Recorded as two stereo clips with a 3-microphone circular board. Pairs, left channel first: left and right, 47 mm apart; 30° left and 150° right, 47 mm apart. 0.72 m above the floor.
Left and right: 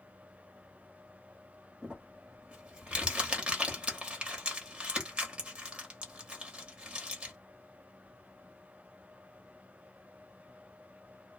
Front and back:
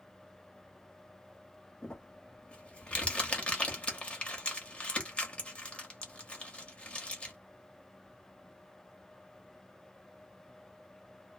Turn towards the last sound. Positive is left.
turn(degrees=-30)